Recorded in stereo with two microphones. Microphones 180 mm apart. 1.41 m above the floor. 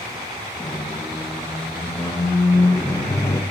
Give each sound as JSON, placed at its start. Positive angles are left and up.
{"t": 0.6, "sound": "a squeak", "side_deg": 15, "distance_m": 0.6}